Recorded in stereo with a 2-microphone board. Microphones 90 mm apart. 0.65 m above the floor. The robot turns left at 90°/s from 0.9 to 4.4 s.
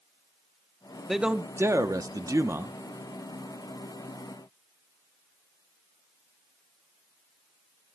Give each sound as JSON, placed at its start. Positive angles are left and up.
{"t": 1.1, "sound": "a man speaking", "azimuth_deg": 0, "distance_m": 0.7}